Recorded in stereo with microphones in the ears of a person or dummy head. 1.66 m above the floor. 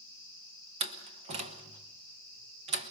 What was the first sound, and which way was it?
A door slam, 30° right (ahead or behind).